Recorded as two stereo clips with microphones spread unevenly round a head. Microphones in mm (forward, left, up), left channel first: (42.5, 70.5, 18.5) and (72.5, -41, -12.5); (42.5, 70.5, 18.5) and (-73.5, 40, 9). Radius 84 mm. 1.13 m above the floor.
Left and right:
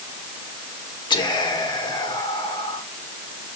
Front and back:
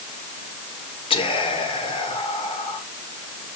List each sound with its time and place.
1.1 s whispering: 55° left, 4.5 m